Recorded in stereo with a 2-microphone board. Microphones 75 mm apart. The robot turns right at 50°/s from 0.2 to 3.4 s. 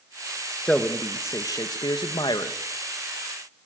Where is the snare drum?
I don't hear a snare drum.